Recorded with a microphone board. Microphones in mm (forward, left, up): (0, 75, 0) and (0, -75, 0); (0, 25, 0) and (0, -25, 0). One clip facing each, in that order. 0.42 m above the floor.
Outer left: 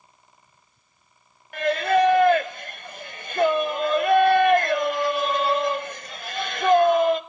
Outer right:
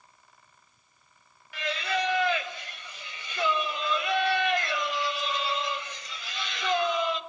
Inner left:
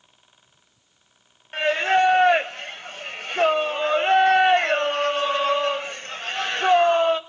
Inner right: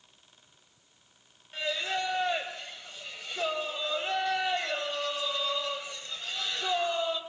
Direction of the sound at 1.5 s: 50° left (ahead or behind).